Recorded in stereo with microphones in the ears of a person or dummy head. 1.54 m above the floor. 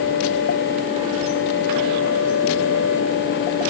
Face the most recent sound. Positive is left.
No sound to turn to.